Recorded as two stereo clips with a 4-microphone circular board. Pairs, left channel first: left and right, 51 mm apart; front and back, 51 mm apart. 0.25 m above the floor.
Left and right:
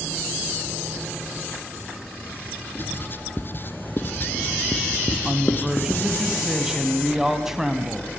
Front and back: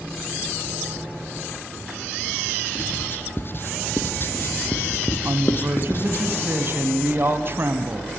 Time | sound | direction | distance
2.8 | writing | 45° left | 1.9 m
5.2 | a woman speaking | 170° right | 2.5 m